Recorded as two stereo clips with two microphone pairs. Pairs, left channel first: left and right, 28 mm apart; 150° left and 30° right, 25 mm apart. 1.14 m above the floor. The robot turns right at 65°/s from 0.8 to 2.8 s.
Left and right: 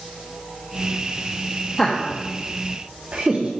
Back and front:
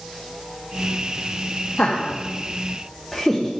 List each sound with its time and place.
1.8 s laughter: 165° left, 0.9 m; by 3.5 s 130° right, 0.9 m